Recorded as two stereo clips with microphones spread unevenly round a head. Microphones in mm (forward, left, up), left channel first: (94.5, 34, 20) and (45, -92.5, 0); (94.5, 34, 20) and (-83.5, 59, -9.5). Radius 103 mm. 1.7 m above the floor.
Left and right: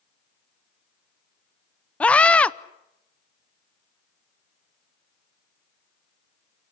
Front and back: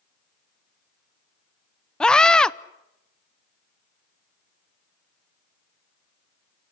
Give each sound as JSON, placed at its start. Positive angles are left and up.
{"t": 2.0, "sound": "a scream", "azimuth_deg": 40, "distance_m": 0.5}